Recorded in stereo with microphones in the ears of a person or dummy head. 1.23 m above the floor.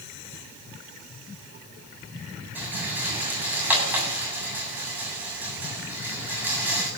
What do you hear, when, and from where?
2.5 s a rattle: 5° right (ahead or behind), 7.5 m